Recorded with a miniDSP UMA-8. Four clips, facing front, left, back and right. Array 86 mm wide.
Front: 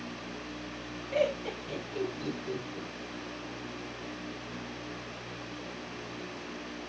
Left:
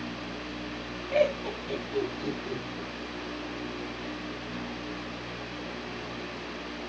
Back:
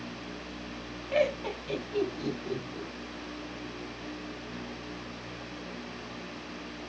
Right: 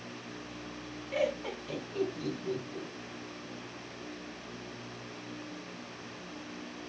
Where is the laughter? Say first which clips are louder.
Left 6 dB, back 2 dB; 155° left, 3 m; by 2.9 s 175° left, 3 m.